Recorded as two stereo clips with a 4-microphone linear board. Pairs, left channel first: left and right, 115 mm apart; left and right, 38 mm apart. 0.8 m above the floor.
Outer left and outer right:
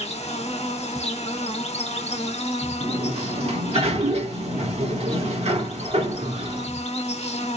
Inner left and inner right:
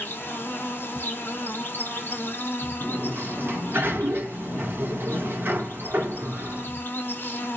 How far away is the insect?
About 1.6 m.